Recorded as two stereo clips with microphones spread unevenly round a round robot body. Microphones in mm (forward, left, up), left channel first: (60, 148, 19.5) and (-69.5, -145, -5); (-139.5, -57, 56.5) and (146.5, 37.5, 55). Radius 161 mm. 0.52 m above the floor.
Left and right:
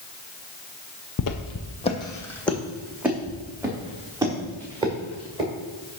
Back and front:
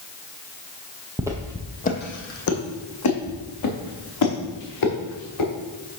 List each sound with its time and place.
1.2 s footsteps: 95° left, 0.8 m; by 5.5 s 170° left, 4 m